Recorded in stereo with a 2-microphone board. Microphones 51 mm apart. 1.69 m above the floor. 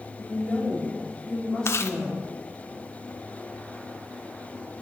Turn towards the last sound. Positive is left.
turn(degrees=55)  # may be behind; listen again after turning